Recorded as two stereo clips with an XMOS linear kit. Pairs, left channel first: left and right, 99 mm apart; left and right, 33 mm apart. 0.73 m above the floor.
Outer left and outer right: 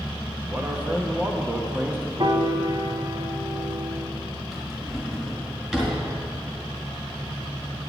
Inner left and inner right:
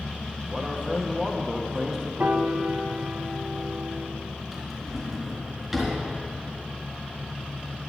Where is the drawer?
5° right (ahead or behind), 3.5 m.